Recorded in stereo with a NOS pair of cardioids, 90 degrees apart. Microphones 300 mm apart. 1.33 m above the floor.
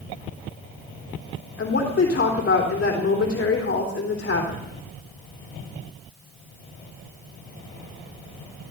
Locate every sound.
1.6 s a woman speaking: 40° left, 3.5 m